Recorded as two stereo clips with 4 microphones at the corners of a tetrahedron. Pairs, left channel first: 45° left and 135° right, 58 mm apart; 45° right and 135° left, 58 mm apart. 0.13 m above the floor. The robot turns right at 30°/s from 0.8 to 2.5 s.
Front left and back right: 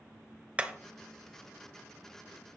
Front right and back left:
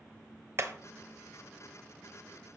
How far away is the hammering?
About 0.9 m.